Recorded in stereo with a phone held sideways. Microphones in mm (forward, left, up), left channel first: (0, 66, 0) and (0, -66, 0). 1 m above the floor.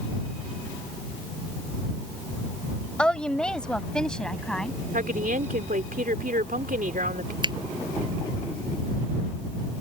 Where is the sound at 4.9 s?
80° right.